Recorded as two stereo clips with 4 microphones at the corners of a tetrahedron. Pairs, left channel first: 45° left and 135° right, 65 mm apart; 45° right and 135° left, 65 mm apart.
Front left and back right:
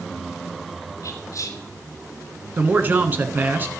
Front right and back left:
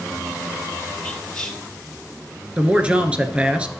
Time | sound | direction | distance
1.0 | whispering | 35° left | 2.5 m
2.6 | a man speaking | 165° right | 1.2 m